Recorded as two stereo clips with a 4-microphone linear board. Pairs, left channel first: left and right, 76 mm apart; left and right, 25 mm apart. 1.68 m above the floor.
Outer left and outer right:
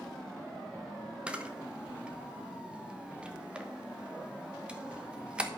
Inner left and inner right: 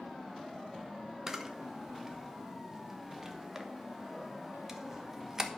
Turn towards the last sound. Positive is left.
turn(degrees=-15)  # may be behind; listen again after turning